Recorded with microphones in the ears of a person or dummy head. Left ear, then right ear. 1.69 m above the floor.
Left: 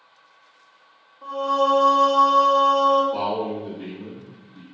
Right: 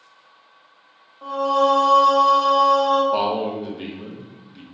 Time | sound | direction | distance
1.2 | singing | 40° right (ahead or behind) | 1.2 m
3.1 | a man speaking | 55° right (ahead or behind) | 0.8 m